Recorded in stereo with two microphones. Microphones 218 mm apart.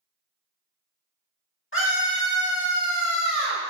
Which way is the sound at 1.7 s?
70° left (ahead or behind).